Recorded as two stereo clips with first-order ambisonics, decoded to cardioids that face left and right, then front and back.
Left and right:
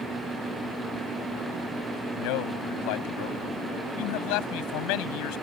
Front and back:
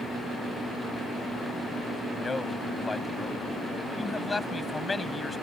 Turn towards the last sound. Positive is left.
turn(degrees=80)